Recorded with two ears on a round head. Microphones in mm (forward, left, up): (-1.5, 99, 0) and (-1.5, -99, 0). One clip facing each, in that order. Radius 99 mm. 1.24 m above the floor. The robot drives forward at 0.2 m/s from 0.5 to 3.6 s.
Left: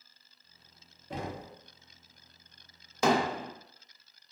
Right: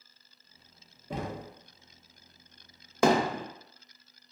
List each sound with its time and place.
1.1 s knocking: 75° right (ahead or behind), 0.7 m; by 1.5 s 80° right, 0.7 m
3.0 s hammering: 45° right (ahead or behind), 0.6 m